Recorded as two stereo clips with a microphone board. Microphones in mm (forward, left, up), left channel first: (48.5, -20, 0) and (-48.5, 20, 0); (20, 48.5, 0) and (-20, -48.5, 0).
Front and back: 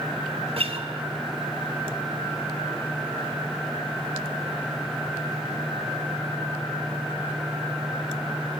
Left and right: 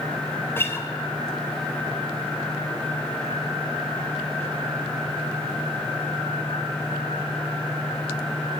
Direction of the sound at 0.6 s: 135° left.